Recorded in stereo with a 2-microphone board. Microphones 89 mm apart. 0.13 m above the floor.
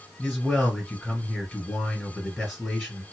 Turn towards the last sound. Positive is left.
turn(degrees=0)  # may be behind; listen again after turning